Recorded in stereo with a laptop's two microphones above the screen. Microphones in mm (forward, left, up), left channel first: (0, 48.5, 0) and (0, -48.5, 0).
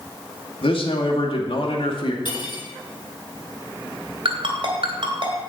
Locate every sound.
0.6 s a man speaking: 65° left (ahead or behind), 2 m
2.2 s cutlery clinking: 50° left (ahead or behind), 5.5 m
4.2 s a ringtone: 60° right (ahead or behind), 2.5 m